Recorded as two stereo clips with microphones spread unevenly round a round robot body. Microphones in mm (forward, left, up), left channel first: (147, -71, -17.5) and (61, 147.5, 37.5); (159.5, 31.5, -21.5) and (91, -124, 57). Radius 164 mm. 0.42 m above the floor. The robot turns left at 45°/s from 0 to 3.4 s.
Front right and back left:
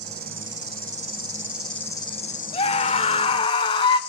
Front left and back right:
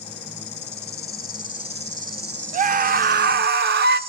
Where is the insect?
95° left, 1.9 m; by 4.1 s 60° right, 1.9 m.